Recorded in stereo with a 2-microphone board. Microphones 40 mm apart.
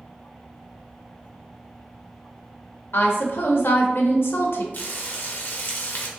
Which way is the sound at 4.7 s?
50° left (ahead or behind).